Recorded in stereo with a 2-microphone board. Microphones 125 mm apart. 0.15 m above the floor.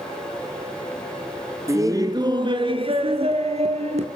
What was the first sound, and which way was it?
Laughter, 25° right (ahead or behind).